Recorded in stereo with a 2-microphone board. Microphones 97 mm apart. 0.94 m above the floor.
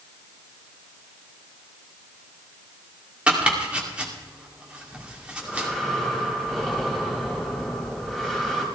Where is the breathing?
Centre (ahead or behind), 3.5 m.